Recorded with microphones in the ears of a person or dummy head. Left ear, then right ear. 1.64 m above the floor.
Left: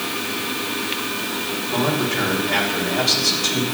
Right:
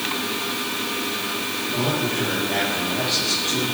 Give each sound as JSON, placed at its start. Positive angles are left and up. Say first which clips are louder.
{"t": 1.7, "sound": "a man speaking", "louder": "left 3 dB", "side_deg": 55, "distance_m": 5.5}